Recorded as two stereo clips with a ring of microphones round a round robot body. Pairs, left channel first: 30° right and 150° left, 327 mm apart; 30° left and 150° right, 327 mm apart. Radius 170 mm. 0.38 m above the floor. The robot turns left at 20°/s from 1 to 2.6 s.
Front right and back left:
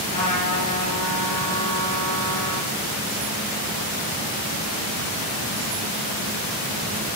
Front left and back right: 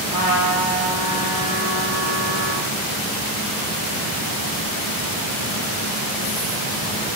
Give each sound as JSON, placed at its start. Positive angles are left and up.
{"t": 0.1, "sound": "a trumpet", "azimuth_deg": -75, "distance_m": 3.5}